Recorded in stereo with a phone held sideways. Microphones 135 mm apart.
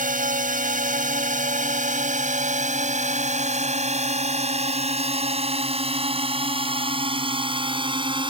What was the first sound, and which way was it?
A drone, 80° right.